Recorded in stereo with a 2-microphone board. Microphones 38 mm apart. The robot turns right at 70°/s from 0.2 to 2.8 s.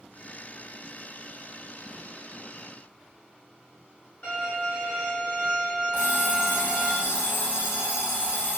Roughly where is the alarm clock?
Left.